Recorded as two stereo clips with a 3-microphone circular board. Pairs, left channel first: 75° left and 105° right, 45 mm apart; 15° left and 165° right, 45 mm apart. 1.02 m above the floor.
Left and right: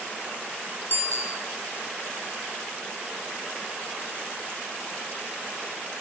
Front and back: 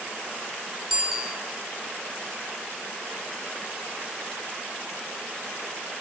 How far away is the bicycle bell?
About 6.5 m.